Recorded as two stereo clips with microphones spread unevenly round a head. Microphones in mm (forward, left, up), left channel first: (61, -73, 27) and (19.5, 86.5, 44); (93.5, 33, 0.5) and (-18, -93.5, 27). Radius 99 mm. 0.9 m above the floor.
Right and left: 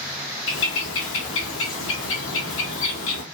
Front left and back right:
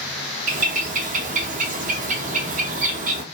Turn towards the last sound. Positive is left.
turn(degrees=-100)